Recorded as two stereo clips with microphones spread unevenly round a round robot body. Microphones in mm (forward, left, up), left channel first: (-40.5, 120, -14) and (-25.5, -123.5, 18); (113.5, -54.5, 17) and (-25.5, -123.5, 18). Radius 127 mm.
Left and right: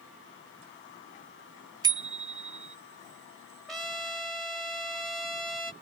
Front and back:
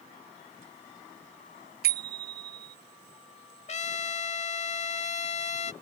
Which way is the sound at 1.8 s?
160° right.